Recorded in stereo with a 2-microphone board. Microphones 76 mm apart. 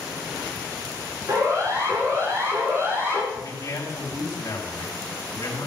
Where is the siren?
45° right (ahead or behind), 6.5 m; by 3.2 s 30° right (ahead or behind), 6 m.